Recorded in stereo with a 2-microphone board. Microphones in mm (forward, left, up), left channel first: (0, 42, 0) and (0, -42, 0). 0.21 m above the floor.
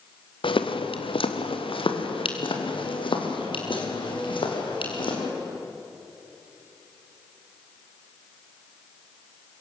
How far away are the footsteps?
About 1.7 m.